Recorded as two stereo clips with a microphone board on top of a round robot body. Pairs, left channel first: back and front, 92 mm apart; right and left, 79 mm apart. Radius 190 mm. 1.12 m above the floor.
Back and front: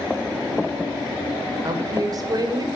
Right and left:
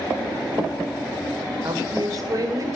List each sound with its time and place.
1.6 s a woman speaking: 45° left, 1.0 m